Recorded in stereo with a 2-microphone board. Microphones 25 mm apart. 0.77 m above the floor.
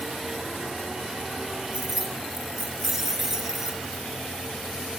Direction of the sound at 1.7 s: 30° right (ahead or behind).